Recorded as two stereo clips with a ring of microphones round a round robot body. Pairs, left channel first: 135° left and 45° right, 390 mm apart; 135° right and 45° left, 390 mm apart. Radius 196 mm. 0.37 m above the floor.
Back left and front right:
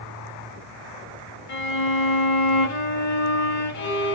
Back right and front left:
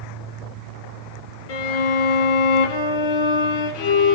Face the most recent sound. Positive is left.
turn(degrees=-170)